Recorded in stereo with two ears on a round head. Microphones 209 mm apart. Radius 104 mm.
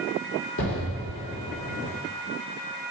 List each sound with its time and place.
0.6 s an explosion: 65° left (ahead or behind), 1.2 m